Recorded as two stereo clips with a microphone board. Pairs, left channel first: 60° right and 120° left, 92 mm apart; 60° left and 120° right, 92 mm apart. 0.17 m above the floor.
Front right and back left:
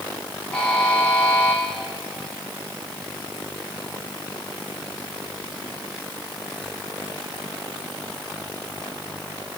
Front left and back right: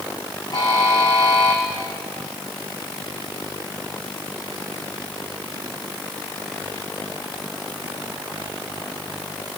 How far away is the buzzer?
About 2.5 m.